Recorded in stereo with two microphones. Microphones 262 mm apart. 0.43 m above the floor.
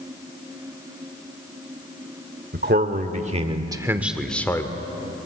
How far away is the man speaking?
About 1.4 m.